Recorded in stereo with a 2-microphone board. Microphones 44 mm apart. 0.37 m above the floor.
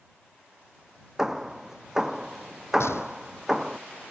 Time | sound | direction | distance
1.2 | hammering | 10° right (ahead or behind) | ?
2.8 | a gunshot | 85° left | ?